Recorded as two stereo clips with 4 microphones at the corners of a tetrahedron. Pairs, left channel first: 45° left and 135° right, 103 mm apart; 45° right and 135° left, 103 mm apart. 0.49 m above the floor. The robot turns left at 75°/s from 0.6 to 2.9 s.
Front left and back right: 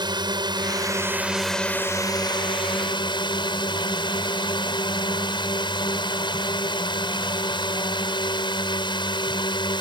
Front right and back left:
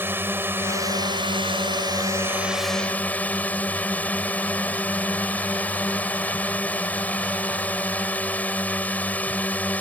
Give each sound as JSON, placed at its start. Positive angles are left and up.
{"t": 0.0, "sound": "a drone", "azimuth_deg": -160}